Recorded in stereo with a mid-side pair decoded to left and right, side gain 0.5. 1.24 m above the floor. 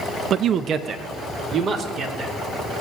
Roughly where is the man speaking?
Ahead right.